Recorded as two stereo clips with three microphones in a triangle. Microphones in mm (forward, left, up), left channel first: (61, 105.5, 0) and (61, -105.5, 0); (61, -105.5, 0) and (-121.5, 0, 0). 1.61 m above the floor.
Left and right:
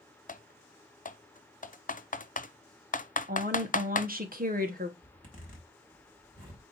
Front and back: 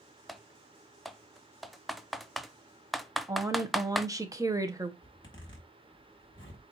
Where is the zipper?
40° left, 4 m.